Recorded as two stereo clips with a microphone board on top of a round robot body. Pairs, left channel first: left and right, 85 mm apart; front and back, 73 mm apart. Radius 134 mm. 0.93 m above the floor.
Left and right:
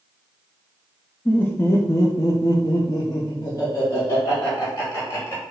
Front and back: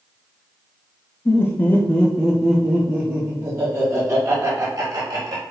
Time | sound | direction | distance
1.2 | laughter | 30° left | 1.0 m